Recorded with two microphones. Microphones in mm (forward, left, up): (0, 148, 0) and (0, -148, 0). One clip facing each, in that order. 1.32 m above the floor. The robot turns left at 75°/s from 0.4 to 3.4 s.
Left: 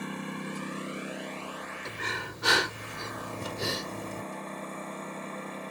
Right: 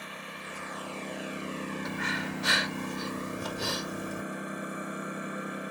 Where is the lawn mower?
60° left; by 5.7 s 165° right.